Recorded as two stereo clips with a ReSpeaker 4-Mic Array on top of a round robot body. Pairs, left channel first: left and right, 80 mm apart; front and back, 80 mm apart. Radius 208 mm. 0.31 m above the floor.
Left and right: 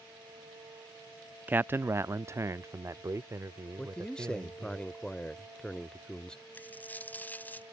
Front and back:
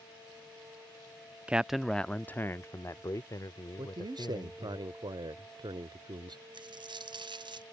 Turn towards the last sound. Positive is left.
turn(degrees=160)